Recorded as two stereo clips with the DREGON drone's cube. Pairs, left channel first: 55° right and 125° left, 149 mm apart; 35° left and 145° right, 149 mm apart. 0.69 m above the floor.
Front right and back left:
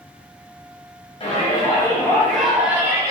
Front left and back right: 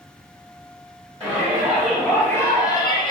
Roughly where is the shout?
Right.